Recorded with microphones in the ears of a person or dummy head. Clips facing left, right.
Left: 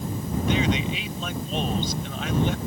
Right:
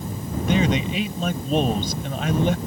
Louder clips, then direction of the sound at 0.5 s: Right 4 dB; 45° right (ahead or behind).